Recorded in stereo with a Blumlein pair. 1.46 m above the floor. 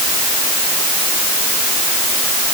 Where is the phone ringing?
I don't hear a phone ringing.